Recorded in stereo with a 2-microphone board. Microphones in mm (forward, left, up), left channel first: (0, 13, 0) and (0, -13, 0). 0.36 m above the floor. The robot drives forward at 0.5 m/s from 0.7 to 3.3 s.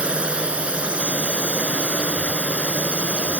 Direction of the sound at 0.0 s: 50° right (ahead or behind).